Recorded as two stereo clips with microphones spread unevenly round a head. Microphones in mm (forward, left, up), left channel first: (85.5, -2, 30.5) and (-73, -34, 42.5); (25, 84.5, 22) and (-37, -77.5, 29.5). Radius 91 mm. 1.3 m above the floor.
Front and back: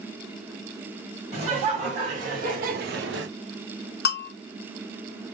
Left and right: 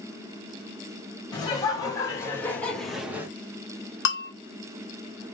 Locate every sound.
1.3 s laughter: 135° left, 2.5 m; by 3.3 s 175° left, 0.9 m
4.0 s a bell: 45° left, 0.6 m